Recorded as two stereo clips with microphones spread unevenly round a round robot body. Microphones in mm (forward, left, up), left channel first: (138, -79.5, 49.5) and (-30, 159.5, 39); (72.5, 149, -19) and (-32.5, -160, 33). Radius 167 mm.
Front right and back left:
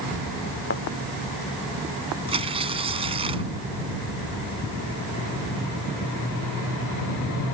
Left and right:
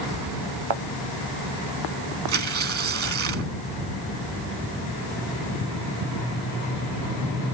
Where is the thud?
115° right.